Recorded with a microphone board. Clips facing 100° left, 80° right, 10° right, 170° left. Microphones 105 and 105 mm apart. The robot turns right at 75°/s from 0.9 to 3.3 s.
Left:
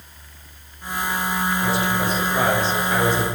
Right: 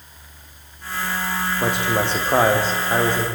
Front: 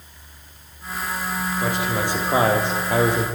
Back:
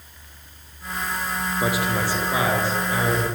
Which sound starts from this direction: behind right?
A man speaking, at 1.6 s.